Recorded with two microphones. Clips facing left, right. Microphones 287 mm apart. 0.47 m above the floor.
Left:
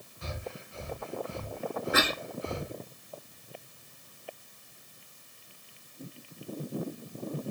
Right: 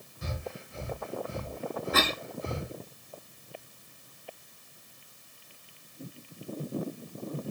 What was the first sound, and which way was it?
Breathing, 20° right (ahead or behind).